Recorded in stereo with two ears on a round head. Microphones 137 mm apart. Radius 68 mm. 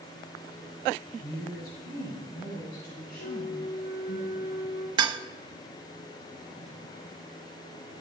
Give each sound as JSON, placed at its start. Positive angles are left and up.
{"t": 1.2, "sound": "a woman speaking", "side_deg": 70, "distance_m": 5.0}
{"t": 3.2, "sound": "a flute", "side_deg": 70, "distance_m": 3.5}
{"t": 5.0, "sound": "dishes clattering", "side_deg": -30, "distance_m": 0.7}